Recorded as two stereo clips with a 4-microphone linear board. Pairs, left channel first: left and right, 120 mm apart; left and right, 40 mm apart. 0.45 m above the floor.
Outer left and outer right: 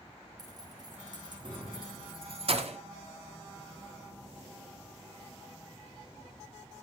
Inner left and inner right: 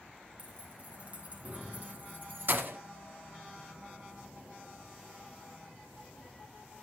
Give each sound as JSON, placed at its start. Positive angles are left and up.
{"t": 0.4, "sound": "keys jangling", "side_deg": -35, "distance_m": 3.5}